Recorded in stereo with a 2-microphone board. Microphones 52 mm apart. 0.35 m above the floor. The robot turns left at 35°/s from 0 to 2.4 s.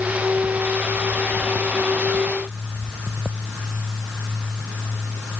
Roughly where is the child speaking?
No child speaking in this recording.